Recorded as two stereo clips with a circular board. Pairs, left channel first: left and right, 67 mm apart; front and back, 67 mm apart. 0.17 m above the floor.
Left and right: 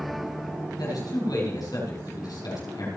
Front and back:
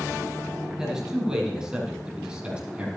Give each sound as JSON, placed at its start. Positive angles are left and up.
{"t": 0.8, "sound": "a man speaking", "azimuth_deg": 95, "distance_m": 7.0}